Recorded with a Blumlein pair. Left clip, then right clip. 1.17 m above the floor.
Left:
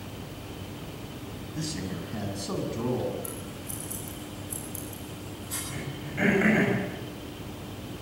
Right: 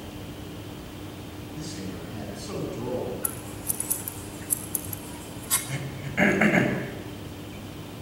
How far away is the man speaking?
About 7 m.